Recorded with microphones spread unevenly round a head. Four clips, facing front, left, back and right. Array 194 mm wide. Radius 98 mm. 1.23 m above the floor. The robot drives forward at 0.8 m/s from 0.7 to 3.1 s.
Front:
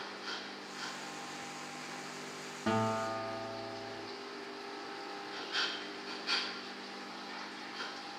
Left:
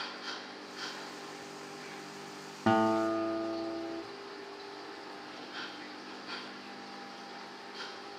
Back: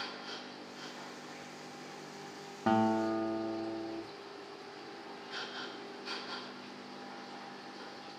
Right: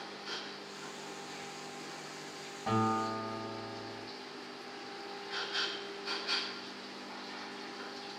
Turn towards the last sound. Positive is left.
turn(degrees=120)